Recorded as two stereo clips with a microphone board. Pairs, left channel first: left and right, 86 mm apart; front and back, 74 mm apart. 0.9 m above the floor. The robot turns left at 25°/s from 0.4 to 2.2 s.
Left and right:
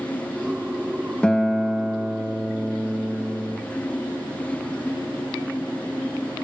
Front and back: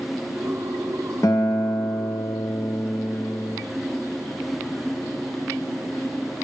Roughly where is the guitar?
Ahead.